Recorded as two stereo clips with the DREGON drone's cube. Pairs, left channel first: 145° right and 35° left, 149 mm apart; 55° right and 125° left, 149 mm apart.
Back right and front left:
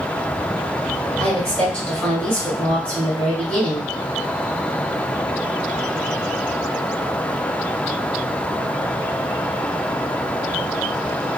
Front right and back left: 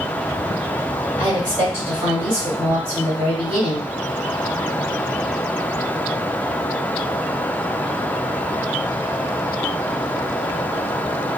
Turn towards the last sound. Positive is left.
turn(degrees=140)